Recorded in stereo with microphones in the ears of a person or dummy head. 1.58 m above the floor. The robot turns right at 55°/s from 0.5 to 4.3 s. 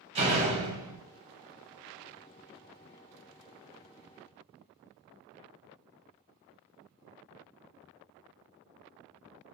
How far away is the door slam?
About 1.3 m.